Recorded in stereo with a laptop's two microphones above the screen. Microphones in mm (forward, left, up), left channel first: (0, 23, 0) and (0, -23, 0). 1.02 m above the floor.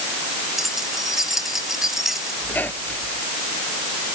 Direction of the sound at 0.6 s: 5° right (ahead or behind).